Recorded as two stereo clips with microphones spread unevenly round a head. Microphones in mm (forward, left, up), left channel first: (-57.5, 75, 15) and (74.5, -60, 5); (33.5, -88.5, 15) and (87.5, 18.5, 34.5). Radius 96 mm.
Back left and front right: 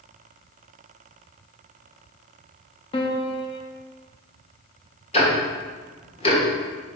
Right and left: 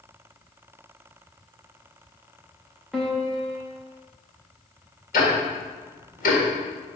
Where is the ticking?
165° right, 1.3 m.